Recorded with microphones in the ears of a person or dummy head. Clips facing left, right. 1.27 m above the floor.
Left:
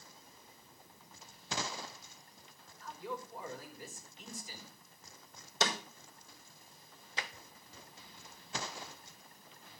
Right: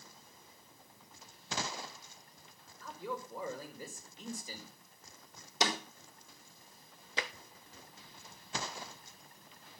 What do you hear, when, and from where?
2.8 s a man speaking: 85° right, 5 m
5.6 s a snare drum: 15° right (ahead or behind), 4 m
7.2 s tapping: 65° right (ahead or behind), 0.6 m